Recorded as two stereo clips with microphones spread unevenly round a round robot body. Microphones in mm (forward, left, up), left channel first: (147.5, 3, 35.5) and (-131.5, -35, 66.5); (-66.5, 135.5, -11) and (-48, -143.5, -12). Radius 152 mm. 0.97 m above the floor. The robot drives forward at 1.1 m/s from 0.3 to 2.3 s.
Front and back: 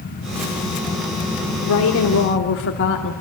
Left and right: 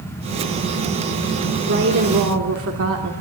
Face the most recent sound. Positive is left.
turn(degrees=-35)